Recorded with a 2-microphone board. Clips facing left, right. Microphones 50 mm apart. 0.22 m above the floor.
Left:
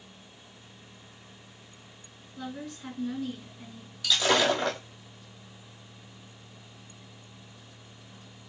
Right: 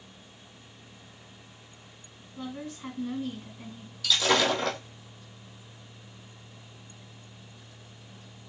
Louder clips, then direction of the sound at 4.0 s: Even; 10° left (ahead or behind).